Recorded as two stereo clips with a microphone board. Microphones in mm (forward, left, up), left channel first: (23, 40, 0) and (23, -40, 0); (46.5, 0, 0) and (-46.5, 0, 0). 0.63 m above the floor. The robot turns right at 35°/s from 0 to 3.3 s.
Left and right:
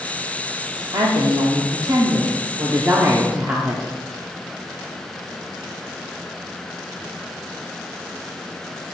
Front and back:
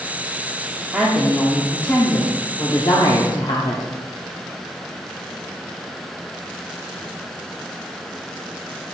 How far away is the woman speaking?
About 1.0 m.